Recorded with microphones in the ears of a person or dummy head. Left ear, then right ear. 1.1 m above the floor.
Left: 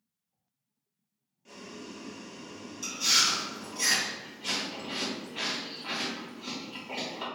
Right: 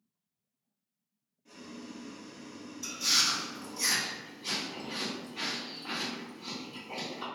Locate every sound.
1.4 s boiling: 45° left (ahead or behind), 0.6 m
2.8 s chewing: 45° left (ahead or behind), 1.2 m